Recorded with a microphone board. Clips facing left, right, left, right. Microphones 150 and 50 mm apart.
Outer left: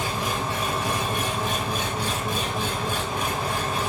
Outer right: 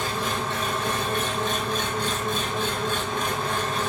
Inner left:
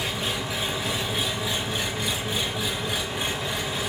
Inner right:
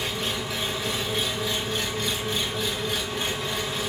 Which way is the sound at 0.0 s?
10° left (ahead or behind).